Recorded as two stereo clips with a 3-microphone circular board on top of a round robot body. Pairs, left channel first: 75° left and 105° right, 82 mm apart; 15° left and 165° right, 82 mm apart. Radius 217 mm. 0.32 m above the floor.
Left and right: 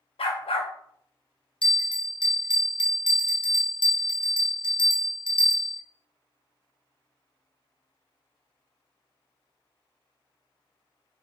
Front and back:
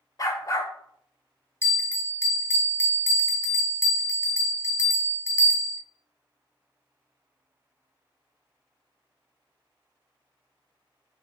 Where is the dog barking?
65° left, 0.6 m.